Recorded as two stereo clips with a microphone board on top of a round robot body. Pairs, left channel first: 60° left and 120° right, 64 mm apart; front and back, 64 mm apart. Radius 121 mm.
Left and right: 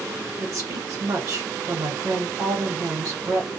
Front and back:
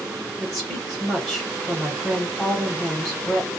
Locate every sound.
0.4 s a woman speaking: 75° right, 1.1 m